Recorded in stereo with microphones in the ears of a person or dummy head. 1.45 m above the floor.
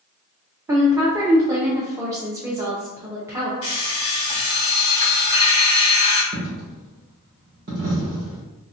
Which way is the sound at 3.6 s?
25° left (ahead or behind).